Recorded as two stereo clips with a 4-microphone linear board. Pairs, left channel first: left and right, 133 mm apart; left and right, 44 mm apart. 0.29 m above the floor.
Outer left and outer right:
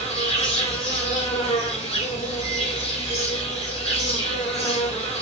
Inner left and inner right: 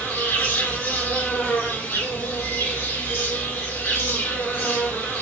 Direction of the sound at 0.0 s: 50° left (ahead or behind).